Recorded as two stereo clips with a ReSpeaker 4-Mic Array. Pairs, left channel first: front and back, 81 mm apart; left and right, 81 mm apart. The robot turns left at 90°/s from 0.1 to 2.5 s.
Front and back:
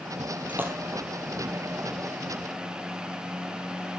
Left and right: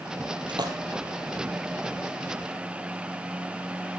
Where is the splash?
105° right, 1.3 m; by 0.8 s 130° right, 1.3 m.